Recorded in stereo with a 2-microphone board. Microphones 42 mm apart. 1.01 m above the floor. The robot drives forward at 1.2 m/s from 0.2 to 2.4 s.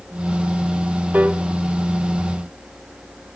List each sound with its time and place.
1.1 s a piano: 40° right (ahead or behind), 1.3 m; by 1.4 s 35° right (ahead or behind), 1.6 m